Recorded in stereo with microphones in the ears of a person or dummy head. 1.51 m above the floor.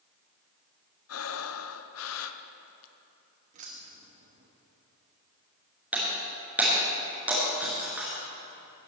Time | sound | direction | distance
1.1 | breathing | 80° left | 0.7 m
3.5 | keys jangling | 35° right (ahead or behind) | 1.2 m
5.9 | breaking glass | 5° right (ahead or behind) | 3.5 m